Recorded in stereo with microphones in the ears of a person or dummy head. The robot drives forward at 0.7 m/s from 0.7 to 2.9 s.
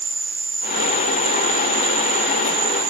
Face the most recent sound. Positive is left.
turn(degrees=-25)  # may be behind; listen again after turning